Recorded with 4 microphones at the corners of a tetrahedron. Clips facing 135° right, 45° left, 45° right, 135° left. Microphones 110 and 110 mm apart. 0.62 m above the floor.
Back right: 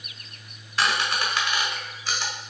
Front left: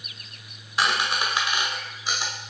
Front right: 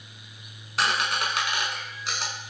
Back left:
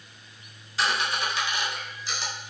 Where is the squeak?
30° right, 1.4 m.